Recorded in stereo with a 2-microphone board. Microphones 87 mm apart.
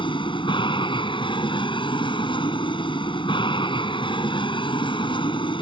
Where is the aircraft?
70° left (ahead or behind).